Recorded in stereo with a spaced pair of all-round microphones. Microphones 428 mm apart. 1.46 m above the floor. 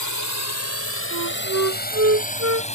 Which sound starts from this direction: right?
A flute, at 1.1 s.